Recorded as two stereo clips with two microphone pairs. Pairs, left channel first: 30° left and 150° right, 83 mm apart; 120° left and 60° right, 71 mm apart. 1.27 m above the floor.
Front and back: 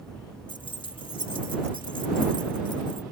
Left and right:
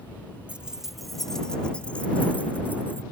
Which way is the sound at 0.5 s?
10° left.